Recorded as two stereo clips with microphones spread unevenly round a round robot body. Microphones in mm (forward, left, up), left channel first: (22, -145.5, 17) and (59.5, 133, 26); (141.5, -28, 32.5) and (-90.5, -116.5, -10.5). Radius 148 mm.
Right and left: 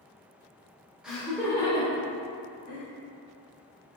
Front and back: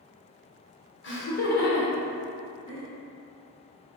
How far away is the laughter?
About 0.9 m.